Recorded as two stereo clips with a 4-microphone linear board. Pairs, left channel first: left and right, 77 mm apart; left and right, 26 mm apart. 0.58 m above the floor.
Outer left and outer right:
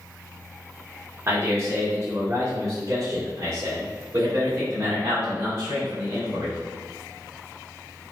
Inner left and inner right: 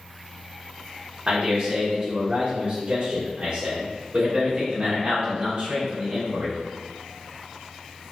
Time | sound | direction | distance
1.3 | a man speaking | 35° right (ahead or behind) | 1.4 m